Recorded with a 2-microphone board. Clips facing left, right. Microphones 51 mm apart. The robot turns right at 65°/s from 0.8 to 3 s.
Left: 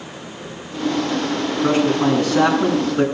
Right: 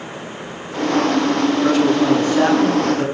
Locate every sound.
1.6 s a man speaking: 25° left, 7 m; by 3.0 s 115° left, 7 m